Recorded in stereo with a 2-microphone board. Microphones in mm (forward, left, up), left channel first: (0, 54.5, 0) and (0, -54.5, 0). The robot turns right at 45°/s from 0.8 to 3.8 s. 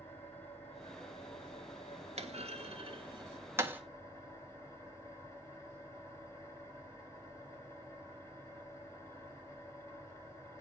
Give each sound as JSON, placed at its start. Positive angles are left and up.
{"t": 0.0, "sound": "an engine running", "azimuth_deg": 20, "distance_m": 6.5}
{"t": 2.2, "sound": "a clunk", "side_deg": -85, "distance_m": 1.5}